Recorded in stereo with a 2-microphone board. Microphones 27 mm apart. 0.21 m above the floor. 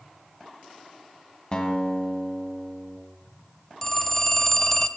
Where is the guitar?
30° left (ahead or behind), 1.5 m.